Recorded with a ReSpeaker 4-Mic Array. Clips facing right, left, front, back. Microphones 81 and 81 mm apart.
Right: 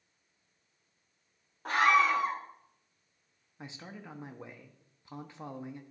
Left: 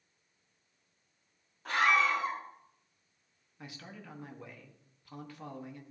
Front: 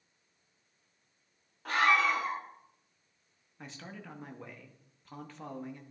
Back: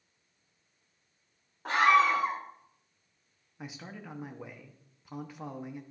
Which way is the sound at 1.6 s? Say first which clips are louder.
Right 3 dB, back 4 dB; 125° right.